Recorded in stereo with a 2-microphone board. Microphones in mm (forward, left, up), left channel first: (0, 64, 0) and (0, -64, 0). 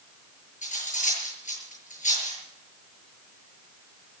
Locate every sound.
0.6 s cutlery clinking: 75° left (ahead or behind), 8 m